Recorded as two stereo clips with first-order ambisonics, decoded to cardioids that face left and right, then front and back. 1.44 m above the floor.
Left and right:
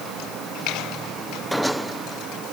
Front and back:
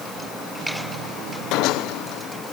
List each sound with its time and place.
Only background noise.